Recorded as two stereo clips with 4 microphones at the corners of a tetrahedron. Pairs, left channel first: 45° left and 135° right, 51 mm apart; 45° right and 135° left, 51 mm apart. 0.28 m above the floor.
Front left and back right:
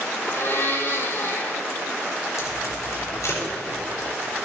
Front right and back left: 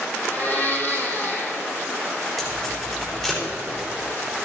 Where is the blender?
5° left, 1.8 m.